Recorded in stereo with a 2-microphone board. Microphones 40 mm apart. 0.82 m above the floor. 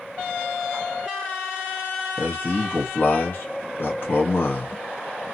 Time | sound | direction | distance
2.2 | a man speaking | 55° left (ahead or behind) | 1.0 m